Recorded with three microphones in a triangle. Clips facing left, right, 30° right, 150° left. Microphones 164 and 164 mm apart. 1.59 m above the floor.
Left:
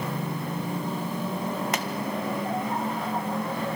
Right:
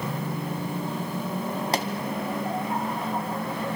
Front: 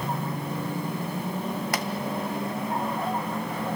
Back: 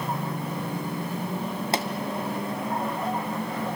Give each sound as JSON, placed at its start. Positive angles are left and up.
{"t": 1.7, "sound": "a pop", "azimuth_deg": -145, "distance_m": 1.6}